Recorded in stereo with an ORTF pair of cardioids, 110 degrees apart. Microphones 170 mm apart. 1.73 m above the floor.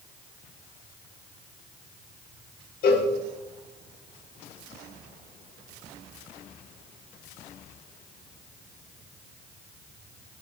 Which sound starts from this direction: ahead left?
A cowbell, at 2.8 s.